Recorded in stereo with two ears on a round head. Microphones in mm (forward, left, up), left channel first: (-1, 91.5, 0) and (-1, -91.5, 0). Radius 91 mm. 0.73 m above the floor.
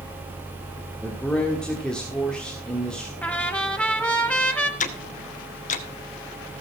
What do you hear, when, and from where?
1.0 s a man speaking: 5° left (ahead or behind), 1.5 m
3.2 s a trumpet: 5° left (ahead or behind), 1.2 m
4.8 s ticking: 40° left (ahead or behind), 1.0 m